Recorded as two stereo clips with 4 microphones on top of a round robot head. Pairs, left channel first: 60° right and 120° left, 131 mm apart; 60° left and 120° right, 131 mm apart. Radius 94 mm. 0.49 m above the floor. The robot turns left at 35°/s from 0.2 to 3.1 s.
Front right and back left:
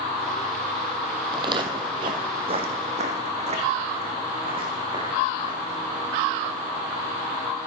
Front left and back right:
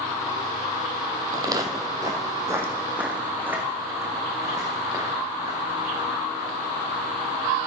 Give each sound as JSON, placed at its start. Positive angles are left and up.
{"t": 1.3, "sound": "footsteps", "azimuth_deg": 175, "distance_m": 0.9}